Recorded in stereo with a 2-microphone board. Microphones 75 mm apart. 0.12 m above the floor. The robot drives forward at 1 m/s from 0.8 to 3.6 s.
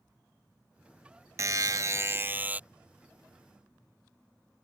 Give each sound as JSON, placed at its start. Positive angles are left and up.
{"t": 1.4, "sound": "a buzzer", "side_deg": -45}